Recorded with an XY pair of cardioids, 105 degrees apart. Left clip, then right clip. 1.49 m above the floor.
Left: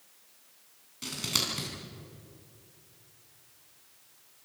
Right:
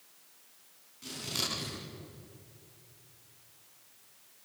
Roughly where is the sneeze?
I don't hear a sneeze.